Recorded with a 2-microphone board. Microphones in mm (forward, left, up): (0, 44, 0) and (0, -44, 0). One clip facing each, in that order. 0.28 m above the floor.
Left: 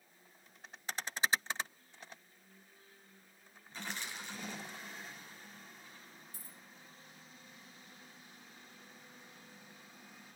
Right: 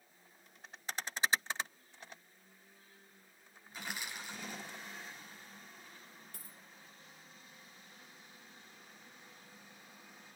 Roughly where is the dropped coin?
Right.